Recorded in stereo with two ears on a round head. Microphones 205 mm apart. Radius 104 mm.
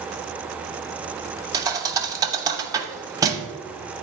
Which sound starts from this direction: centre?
A thud, at 1.5 s.